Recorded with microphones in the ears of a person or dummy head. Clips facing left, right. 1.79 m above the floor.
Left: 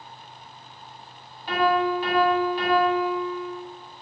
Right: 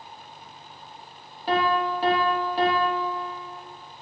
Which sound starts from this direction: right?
A piano, at 1.5 s.